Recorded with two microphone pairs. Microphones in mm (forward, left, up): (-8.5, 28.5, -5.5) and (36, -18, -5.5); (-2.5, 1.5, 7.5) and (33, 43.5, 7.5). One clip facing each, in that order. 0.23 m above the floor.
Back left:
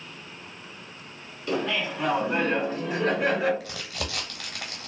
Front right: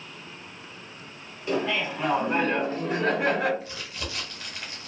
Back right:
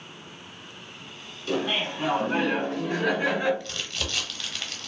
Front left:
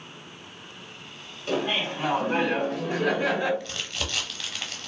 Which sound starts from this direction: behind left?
Crumpling, at 3.6 s.